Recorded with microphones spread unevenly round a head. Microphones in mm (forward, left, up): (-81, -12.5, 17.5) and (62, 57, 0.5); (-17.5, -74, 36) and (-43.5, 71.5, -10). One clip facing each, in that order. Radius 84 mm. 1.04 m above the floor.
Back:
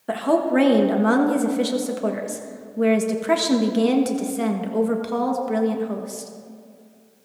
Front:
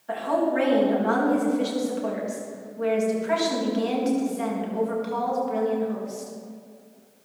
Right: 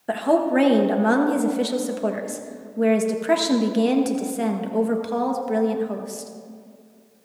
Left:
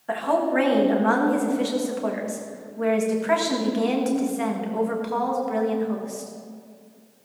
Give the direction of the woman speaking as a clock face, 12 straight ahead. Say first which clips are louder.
Back 4 dB, right 3 dB; 4 o'clock.